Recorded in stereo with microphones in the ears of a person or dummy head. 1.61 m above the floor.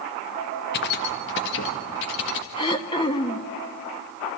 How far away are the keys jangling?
About 1.0 m.